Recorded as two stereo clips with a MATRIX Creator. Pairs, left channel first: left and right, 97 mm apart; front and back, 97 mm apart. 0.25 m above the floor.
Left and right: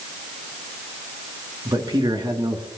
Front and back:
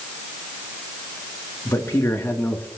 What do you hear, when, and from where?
1.6 s a man speaking: 55° right, 3 m; by 2.7 s 70° right, 3 m